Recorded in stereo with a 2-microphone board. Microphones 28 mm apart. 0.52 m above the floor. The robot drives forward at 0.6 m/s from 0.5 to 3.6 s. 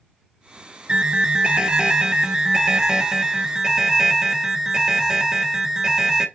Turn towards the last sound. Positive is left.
turn(degrees=-20)  # may be behind; listen again after turning